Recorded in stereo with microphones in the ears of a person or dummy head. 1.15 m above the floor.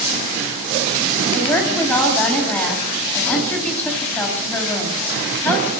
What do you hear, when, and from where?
1.3 s a woman speaking: 5° left (ahead or behind), 6 m